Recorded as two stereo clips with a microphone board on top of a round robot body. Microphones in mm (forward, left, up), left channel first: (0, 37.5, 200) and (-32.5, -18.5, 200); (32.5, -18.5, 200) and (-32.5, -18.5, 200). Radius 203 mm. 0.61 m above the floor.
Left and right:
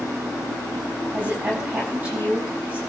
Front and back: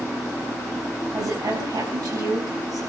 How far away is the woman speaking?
About 6.5 m.